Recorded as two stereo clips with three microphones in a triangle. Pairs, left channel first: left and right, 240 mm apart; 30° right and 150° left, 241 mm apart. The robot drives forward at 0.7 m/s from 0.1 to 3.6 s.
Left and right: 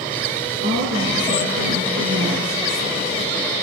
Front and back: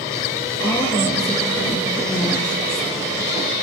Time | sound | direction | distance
0.6 | a woman speaking | 100° right | 5 m